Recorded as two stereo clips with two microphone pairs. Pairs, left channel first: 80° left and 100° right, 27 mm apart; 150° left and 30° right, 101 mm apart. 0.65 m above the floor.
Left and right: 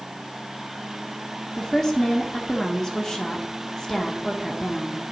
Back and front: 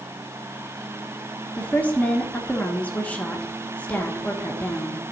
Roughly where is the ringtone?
I don't hear a ringtone.